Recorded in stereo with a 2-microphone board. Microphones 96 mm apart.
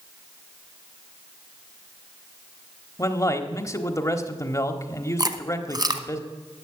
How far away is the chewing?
About 0.9 m.